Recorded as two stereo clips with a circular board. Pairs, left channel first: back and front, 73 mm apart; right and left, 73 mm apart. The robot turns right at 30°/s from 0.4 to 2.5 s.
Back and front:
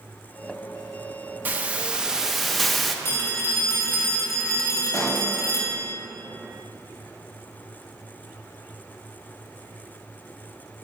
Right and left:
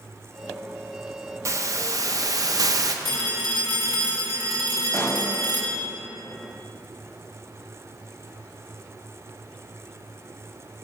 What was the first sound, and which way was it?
A hiss, 60° left.